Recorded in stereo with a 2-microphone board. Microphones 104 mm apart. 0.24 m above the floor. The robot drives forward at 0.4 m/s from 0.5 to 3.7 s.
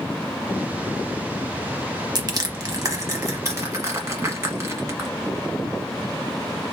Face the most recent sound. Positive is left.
turn(degrees=-30)  # may be behind; listen again after turning